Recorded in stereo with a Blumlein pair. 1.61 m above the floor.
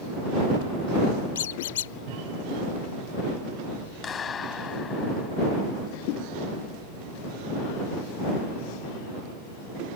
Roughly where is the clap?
Ahead.